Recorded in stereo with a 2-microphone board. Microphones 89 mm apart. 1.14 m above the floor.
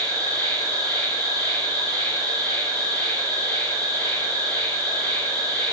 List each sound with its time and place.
0.0 s an insect: 20° left (ahead or behind), 1.5 m